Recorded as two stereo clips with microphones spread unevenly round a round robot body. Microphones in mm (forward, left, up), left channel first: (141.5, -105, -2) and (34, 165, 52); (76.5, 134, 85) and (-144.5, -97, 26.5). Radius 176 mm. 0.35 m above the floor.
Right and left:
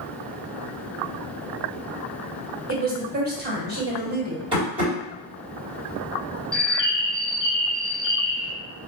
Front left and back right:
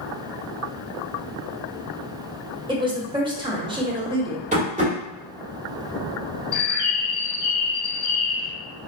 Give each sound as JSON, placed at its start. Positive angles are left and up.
{"t": 2.7, "sound": "a woman speaking", "azimuth_deg": 170, "distance_m": 1.0}
{"t": 4.5, "sound": "tapping", "azimuth_deg": -170, "distance_m": 1.4}
{"t": 6.5, "sound": "a bird", "azimuth_deg": -5, "distance_m": 0.8}